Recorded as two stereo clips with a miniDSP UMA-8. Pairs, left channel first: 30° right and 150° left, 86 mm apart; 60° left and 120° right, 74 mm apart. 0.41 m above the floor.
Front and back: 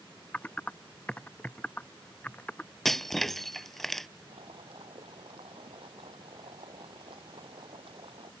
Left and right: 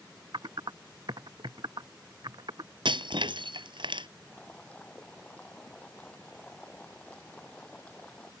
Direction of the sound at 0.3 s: 105° right.